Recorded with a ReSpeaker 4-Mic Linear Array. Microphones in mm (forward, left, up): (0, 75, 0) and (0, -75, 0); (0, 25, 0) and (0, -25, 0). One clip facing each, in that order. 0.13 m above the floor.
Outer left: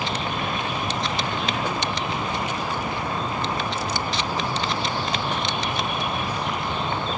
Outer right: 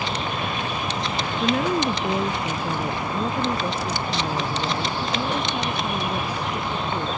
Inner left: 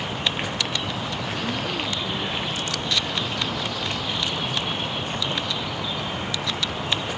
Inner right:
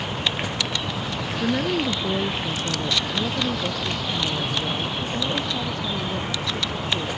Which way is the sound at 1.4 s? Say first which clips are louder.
Outer right 5 dB, inner right 8 dB; 45° right (ahead or behind).